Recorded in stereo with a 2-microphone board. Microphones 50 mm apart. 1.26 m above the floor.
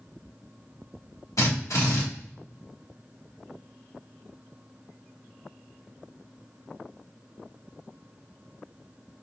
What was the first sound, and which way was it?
A drill, 75° left (ahead or behind).